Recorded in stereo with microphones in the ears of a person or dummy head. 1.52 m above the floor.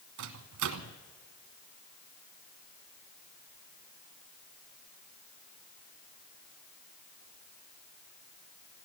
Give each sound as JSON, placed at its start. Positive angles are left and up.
{"t": 0.2, "sound": "a microwave", "side_deg": -65, "distance_m": 0.9}